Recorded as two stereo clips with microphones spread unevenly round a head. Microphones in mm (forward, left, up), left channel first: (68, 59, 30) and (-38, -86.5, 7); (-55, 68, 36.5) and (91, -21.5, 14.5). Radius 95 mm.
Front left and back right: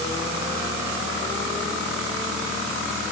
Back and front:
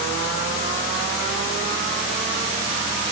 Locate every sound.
Only background noise.